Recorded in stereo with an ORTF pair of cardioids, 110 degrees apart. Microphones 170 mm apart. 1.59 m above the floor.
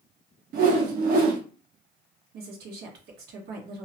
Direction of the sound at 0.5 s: 60° right.